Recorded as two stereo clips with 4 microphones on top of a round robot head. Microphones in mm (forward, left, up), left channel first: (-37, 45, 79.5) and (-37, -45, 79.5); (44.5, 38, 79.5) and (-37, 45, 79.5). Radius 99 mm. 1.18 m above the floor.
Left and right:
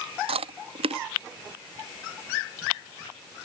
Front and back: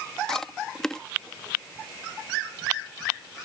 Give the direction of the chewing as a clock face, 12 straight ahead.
3 o'clock.